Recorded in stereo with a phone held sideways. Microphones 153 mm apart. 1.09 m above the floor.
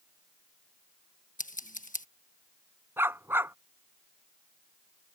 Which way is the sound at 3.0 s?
15° right (ahead or behind).